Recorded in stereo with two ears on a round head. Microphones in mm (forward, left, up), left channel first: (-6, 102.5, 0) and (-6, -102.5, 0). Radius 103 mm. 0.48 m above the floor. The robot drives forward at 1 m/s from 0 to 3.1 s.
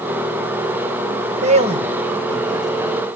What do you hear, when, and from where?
1.4 s a man speaking: 30° right (ahead or behind), 1.3 m; by 3.0 s 15° right (ahead or behind), 2.5 m